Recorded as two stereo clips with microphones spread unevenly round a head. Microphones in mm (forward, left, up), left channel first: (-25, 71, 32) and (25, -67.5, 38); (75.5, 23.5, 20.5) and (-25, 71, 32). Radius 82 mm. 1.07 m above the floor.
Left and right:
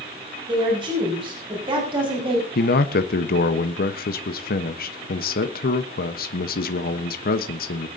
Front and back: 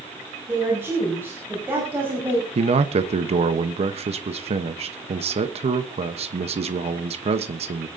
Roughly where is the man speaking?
Behind left.